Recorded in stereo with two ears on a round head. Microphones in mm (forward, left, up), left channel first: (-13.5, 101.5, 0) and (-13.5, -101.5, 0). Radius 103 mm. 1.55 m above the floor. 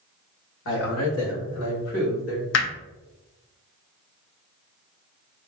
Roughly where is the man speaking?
Left.